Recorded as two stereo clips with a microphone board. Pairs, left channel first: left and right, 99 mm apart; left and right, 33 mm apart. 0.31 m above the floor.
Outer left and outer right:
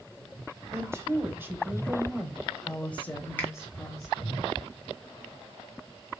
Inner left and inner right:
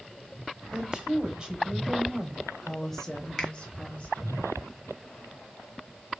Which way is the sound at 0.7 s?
25° right (ahead or behind).